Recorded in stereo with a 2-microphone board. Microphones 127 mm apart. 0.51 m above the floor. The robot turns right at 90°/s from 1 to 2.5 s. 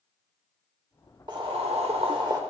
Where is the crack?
I don't hear a crack.